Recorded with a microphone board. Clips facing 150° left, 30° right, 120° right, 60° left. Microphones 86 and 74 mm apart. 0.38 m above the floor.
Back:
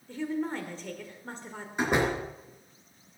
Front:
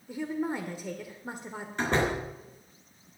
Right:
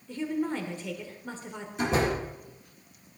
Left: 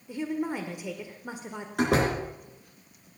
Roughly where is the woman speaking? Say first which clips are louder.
Even, even; ahead.